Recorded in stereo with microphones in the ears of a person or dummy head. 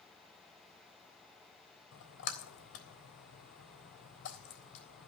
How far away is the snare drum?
I don't hear a snare drum.